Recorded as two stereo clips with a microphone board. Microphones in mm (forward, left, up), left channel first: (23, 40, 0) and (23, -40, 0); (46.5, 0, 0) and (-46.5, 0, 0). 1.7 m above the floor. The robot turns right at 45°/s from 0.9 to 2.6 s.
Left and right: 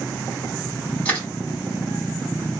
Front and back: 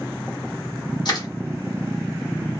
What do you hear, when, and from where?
1.1 s crushing: 25° left, 1.2 m; by 1.3 s 30° left, 1.2 m